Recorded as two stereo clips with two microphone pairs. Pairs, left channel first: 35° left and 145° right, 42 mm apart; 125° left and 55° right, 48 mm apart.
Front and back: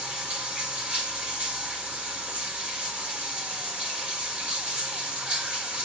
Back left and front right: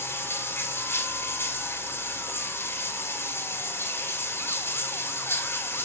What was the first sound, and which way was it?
Running water, 155° left.